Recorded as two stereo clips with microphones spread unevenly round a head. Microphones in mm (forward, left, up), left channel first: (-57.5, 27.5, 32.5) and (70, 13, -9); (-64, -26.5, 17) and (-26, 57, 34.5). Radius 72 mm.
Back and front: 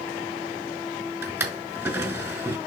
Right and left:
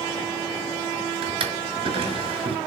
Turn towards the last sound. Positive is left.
turn(degrees=70)